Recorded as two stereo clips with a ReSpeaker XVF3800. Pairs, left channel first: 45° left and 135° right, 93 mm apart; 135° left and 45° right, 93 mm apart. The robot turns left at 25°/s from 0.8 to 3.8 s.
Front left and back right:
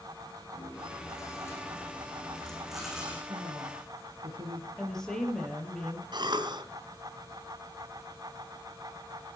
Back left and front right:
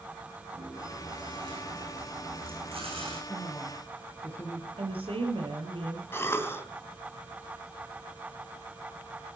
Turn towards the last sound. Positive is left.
turn(degrees=-165)